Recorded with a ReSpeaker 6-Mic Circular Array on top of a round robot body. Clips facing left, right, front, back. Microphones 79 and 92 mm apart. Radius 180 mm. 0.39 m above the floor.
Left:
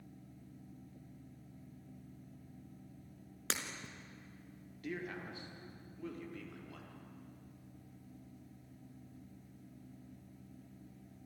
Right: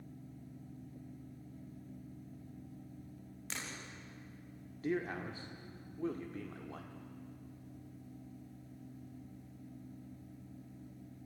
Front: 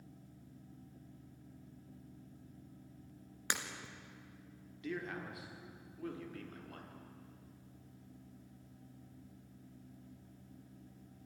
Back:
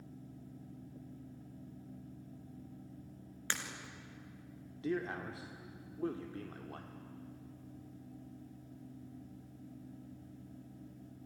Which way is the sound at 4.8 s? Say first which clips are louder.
Right 6 dB, back 5 dB; 135° right.